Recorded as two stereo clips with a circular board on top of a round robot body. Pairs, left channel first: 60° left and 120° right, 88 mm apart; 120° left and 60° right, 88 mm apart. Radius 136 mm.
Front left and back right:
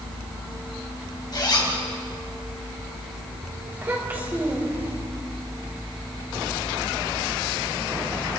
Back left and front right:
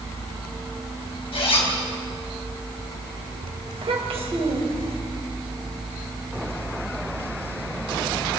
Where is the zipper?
105° left, 4 m.